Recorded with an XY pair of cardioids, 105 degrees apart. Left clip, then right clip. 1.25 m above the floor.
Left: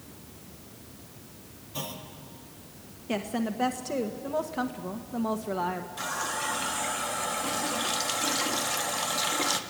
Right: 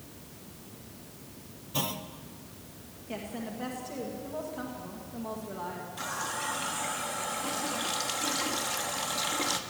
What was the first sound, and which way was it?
A clunk, 45° right.